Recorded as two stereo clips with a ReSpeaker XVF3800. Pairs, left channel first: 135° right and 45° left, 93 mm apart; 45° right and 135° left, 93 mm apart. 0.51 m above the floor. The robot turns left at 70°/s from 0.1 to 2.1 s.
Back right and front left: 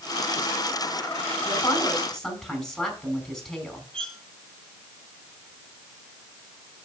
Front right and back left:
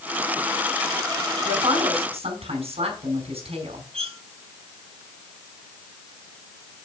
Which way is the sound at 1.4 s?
175° right.